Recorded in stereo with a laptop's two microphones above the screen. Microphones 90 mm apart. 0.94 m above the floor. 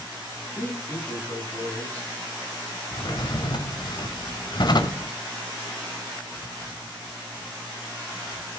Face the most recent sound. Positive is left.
turn(degrees=55)  # may be behind; listen again after turning